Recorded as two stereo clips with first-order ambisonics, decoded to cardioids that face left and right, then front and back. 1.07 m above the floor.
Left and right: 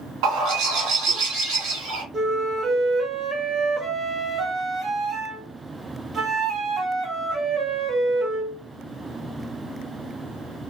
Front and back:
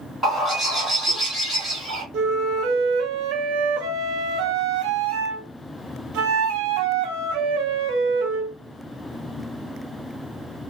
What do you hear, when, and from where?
0.2 s a bird: 100° right, 1.7 m
2.1 s a flute: 155° right, 0.6 m